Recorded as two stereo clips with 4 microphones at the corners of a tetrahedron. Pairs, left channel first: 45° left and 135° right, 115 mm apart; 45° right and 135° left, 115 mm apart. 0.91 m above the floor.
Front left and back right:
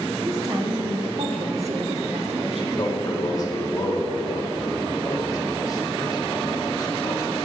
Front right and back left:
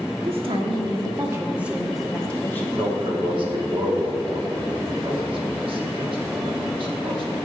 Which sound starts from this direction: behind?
A woman speaking, at 0.2 s.